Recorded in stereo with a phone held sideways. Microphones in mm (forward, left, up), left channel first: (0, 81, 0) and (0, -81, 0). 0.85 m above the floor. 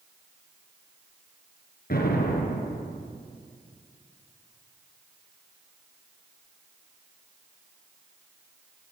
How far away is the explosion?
About 4.5 m.